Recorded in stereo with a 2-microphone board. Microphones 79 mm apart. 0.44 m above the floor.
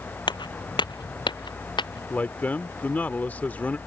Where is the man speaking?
20° left (ahead or behind).